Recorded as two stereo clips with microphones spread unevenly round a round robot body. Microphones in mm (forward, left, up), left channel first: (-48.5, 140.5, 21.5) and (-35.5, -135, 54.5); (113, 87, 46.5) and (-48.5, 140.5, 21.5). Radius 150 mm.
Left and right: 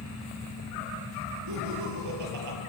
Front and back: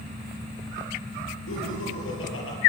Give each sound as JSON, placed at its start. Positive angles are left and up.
{"t": 1.5, "sound": "laughter", "azimuth_deg": -50, "distance_m": 8.0}